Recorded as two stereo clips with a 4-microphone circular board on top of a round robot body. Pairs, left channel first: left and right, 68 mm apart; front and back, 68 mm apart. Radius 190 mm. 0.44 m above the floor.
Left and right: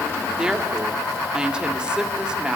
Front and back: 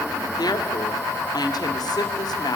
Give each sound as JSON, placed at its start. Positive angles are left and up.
{"t": 0.4, "sound": "a woman speaking", "azimuth_deg": -10, "distance_m": 1.8}